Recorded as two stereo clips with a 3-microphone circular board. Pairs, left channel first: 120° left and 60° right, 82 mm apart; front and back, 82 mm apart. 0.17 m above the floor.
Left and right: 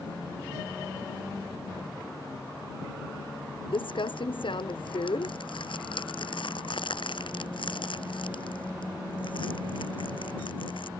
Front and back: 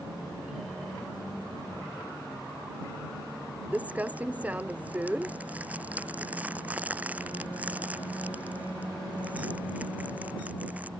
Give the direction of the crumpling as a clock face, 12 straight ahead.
8 o'clock.